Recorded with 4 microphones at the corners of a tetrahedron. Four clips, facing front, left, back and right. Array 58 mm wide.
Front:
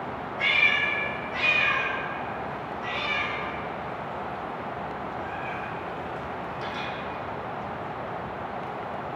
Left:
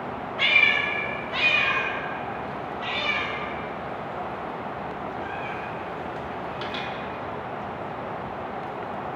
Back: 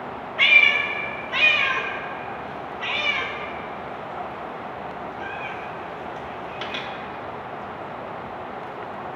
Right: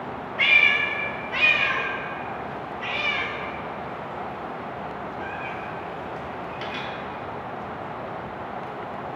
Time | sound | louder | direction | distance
0.4 | a cat meowing | right 2 dB, back 6 dB | 175° right | 0.9 m